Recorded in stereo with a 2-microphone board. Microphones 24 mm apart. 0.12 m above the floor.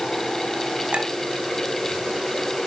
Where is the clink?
60° right (ahead or behind), 2.0 m.